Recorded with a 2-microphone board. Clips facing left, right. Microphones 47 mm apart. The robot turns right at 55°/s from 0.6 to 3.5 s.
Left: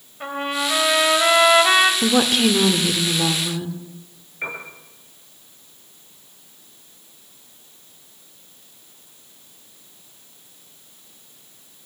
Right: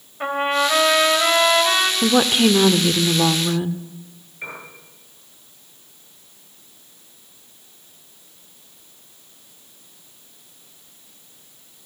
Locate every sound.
0.2 s a trumpet: 25° right, 2.5 m; by 1.9 s 45° left, 2.5 m
2.0 s a woman speaking: 5° right (ahead or behind), 1.0 m; by 3.8 s 25° right (ahead or behind), 1.0 m
4.4 s a piano: 25° left (ahead or behind), 9 m